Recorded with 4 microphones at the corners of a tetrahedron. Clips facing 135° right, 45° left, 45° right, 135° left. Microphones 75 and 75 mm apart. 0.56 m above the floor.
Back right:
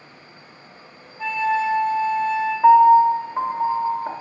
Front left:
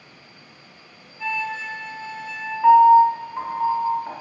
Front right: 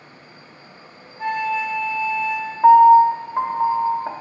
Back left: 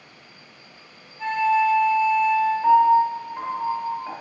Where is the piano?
85° right, 0.6 m.